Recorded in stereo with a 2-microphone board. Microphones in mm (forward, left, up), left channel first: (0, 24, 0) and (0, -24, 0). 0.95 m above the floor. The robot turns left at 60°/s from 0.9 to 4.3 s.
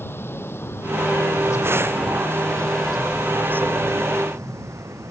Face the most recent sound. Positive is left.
turn(degrees=-85)